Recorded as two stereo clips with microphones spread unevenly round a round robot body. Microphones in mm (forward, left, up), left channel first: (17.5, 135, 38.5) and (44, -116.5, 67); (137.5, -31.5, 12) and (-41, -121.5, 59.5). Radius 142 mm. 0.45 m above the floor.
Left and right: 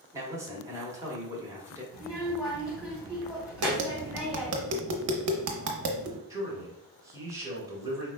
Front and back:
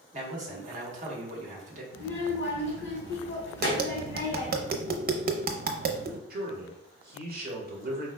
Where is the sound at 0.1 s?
160° right, 1.3 m.